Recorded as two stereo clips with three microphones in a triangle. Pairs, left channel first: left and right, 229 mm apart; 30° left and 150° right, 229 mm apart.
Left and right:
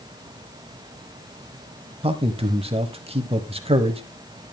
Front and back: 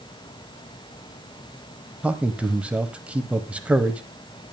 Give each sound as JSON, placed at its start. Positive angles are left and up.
{"t": 2.0, "sound": "a man speaking", "azimuth_deg": -70, "distance_m": 1.0}